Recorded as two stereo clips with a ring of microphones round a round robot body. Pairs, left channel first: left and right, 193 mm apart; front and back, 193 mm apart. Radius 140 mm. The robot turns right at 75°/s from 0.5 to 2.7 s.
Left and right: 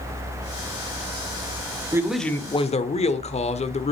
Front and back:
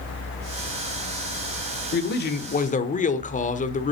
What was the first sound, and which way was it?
A man speaking, 20° right.